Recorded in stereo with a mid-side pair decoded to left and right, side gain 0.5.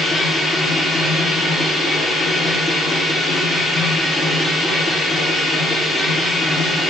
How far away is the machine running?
About 0.9 m.